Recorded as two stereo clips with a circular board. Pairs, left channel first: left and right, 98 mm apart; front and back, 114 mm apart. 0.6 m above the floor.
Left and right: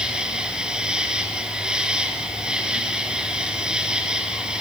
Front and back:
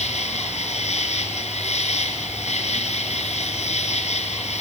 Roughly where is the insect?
Ahead.